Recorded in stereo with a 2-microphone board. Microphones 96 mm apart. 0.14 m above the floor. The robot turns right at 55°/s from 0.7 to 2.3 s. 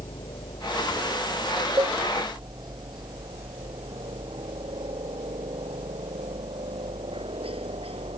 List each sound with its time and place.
0.0 s a helicopter: 60° left (ahead or behind); by 8.2 s 75° right (ahead or behind)
1.8 s a cowbell: 45° right (ahead or behind); by 2.0 s 35° right (ahead or behind)